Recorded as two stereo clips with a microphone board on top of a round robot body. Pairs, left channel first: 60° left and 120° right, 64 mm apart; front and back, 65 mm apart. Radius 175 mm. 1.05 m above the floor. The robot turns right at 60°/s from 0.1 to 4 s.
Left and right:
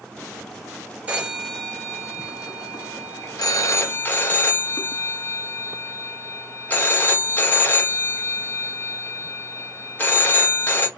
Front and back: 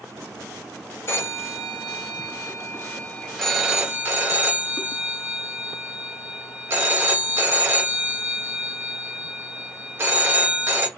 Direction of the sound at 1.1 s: 55° right.